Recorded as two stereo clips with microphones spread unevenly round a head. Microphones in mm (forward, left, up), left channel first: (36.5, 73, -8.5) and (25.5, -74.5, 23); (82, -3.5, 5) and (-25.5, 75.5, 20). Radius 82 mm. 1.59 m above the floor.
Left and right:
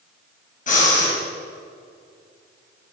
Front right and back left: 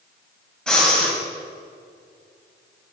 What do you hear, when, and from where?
0.7 s breathing: 50° left, 6 m